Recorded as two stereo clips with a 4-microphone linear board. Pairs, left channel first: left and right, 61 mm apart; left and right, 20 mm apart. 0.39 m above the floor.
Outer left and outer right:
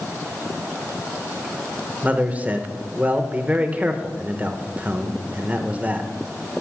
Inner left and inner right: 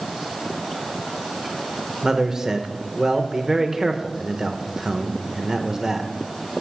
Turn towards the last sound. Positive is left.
turn(degrees=-25)  # may be behind; listen again after turning